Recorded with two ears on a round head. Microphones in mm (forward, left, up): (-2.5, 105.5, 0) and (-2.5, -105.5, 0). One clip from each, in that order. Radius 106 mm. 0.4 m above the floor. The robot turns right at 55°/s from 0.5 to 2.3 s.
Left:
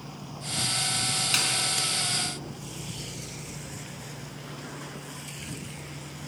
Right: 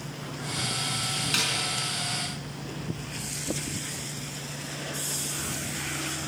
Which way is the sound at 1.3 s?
15° left (ahead or behind).